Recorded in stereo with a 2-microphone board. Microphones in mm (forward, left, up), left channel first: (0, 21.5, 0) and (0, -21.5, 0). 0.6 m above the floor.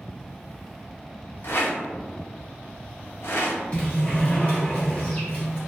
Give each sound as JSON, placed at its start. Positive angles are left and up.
{"t": 1.4, "sound": "a rattle", "side_deg": 65, "distance_m": 0.6}
{"t": 3.7, "sound": "a sliding door", "side_deg": 25, "distance_m": 1.0}